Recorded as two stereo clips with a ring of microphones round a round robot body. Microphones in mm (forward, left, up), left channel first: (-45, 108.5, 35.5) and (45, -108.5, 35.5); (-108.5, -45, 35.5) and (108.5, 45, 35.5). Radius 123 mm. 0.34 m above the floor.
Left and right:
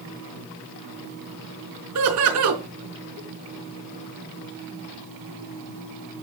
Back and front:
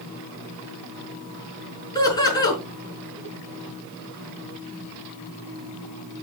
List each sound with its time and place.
1.9 s laughter: 85° right, 4.5 m